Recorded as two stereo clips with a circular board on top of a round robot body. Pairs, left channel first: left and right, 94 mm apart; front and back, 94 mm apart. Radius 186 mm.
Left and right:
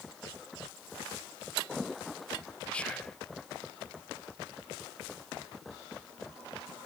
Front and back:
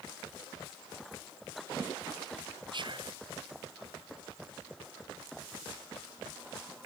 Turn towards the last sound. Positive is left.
turn(degrees=165)